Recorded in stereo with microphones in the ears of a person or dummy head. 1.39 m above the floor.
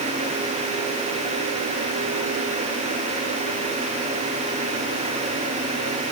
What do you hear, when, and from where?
Only background noise.